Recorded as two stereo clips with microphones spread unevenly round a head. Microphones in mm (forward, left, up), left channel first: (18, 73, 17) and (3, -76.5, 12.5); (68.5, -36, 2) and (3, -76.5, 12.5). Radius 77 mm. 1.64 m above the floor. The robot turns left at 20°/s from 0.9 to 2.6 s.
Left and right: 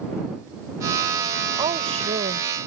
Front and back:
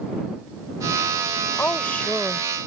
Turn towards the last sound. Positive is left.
turn(degrees=-55)